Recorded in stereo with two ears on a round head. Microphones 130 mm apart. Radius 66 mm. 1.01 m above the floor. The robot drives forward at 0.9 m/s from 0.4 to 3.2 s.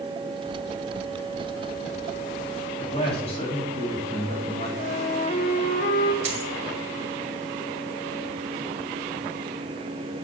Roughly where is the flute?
Left.